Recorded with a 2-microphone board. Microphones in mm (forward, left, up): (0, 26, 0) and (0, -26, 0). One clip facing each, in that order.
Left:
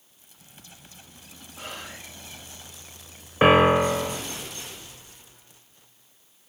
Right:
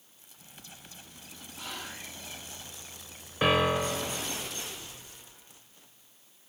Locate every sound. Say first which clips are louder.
1.6 s whispering: left 2 dB; 40° left (ahead or behind), 8.5 m
3.4 s a piano: left 9 dB; 35° left (ahead or behind), 0.5 m